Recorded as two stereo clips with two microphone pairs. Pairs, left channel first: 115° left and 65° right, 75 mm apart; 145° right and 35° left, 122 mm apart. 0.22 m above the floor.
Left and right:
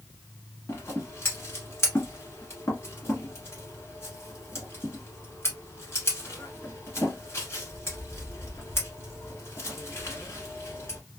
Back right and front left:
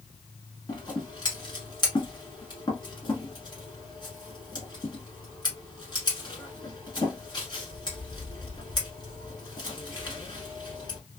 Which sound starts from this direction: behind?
Scissors, at 0.7 s.